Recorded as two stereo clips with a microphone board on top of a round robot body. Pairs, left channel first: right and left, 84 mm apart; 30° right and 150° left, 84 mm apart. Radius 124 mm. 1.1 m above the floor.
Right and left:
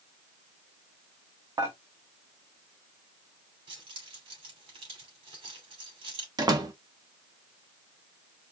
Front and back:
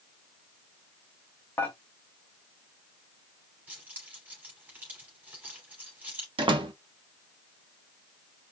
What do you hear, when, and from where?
1.6 s dishes clattering: 35° left, 1.2 m
3.7 s keys jangling: 80° left, 3 m
6.4 s a door slam: 130° left, 1.3 m